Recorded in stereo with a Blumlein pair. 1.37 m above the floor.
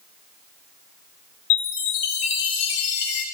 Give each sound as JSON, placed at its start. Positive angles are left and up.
{"t": 1.5, "sound": "a chime", "azimuth_deg": 45, "distance_m": 1.3}